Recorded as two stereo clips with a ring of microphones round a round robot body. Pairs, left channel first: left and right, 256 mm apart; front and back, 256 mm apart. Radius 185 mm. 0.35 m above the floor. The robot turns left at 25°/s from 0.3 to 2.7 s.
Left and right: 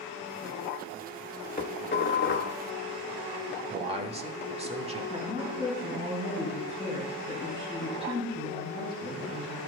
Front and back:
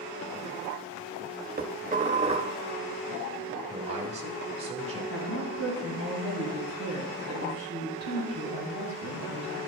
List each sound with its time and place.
1.6 s dishes clattering: 135° left, 1.0 m; by 2.5 s 110° left, 1.0 m
3.7 s a man speaking: 135° right, 1.2 m
5.1 s a woman speaking: 15° right, 3 m